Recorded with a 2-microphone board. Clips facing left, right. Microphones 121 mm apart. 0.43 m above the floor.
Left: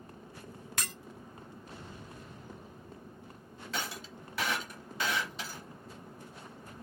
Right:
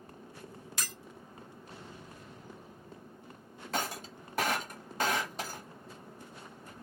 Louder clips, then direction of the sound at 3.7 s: Right 4 dB; 45° right (ahead or behind).